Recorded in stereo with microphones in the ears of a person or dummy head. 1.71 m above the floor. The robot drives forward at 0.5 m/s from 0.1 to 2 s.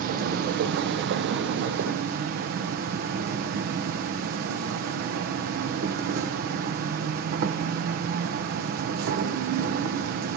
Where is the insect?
50° right (ahead or behind), 1.1 m; by 10.4 s 55° right (ahead or behind), 1.0 m.